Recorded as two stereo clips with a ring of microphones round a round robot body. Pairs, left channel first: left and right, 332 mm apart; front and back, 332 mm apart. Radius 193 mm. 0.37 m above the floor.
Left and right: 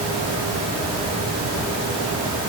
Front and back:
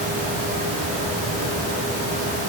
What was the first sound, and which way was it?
Only background noise.